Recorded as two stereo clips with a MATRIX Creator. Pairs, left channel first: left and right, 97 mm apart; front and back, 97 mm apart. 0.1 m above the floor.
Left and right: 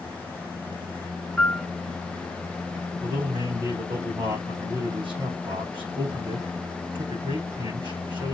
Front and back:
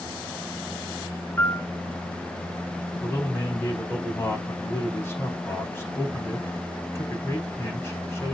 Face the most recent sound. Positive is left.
turn(degrees=-65)